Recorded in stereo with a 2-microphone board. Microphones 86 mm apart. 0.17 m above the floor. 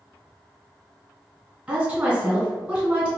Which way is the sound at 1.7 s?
15° right (ahead or behind).